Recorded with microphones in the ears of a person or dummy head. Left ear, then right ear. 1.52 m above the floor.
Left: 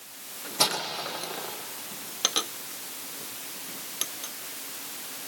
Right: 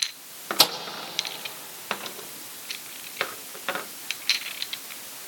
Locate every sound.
0.6 s a microwave: 65° right (ahead or behind), 1.7 m